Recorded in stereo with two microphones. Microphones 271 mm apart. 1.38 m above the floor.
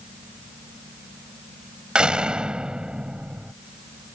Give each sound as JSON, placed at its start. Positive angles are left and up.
{"t": 1.9, "sound": "a door slam", "side_deg": -5}